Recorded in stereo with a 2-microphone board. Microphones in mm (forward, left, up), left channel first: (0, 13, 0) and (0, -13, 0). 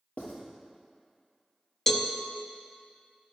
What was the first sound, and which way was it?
Writing, 75° left (ahead or behind).